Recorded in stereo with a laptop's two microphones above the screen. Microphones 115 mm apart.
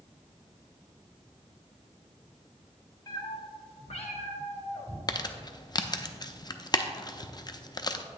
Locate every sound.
3.1 s a cat meowing: 35° left (ahead or behind), 1.5 m; by 5.0 s 65° left (ahead or behind), 1.5 m
5.1 s crumpling: 35° left (ahead or behind), 0.5 m